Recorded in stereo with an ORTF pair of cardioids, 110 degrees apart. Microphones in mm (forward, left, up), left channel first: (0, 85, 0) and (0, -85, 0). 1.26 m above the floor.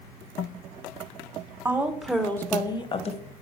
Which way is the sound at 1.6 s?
15° right.